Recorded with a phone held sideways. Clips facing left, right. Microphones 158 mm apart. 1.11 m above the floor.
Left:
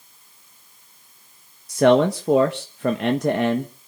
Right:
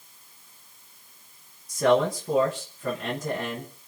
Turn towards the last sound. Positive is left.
turn(degrees=75)  # may be behind; listen again after turning